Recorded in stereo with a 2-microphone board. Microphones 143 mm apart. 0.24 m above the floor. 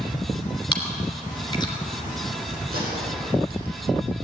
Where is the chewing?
30° left (ahead or behind), 2.5 m.